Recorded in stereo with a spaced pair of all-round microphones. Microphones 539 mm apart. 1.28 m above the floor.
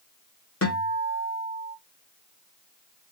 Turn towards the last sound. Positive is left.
turn(degrees=25)  # may be behind; listen again after turning